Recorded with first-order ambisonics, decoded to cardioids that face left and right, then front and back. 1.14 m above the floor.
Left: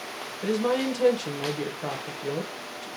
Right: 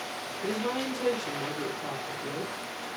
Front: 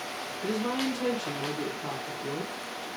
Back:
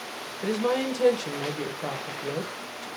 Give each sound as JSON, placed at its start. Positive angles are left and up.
{"t": 0.4, "sound": "a woman speaking", "azimuth_deg": 140, "distance_m": 0.8}